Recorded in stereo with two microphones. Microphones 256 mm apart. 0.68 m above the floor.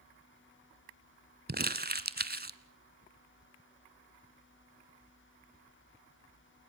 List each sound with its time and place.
1.5 s crumpling: 40° right (ahead or behind), 1.2 m